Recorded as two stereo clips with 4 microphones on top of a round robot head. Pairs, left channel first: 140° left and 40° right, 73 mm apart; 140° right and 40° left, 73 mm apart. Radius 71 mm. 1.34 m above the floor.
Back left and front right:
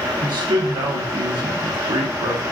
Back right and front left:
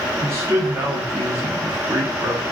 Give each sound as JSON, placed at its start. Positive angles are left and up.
{"t": 0.2, "sound": "a man speaking", "azimuth_deg": -15, "distance_m": 1.3}